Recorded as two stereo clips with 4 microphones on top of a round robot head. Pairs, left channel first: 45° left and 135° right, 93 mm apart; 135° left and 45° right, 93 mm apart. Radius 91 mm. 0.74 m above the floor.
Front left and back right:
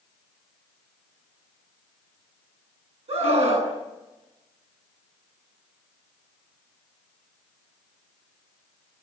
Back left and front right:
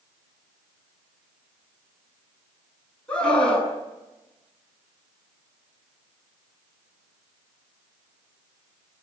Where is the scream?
145° right, 7.5 m.